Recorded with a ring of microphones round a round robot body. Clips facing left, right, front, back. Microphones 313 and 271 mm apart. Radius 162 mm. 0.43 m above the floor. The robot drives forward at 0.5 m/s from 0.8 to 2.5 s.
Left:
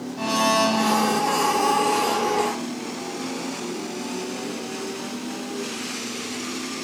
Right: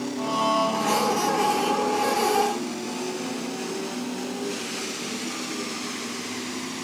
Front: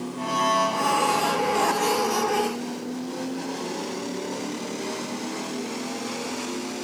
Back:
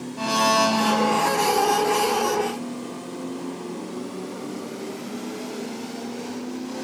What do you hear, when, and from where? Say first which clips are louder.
0.2 s a blender: left 6 dB, back 6 dB; 140° left; by 1.2 s 145° left